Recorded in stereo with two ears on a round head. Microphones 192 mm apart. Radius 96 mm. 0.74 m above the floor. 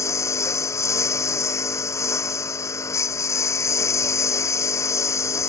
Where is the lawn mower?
15° left (ahead or behind).